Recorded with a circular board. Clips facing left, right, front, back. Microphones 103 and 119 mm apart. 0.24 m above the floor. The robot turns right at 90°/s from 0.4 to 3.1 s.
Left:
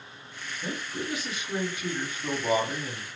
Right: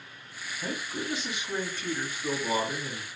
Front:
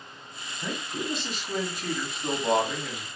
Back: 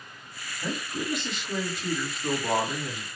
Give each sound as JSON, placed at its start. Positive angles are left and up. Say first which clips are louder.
{"t": 0.6, "sound": "a man speaking", "louder": "even, back 1 dB", "azimuth_deg": -90, "distance_m": 1.4}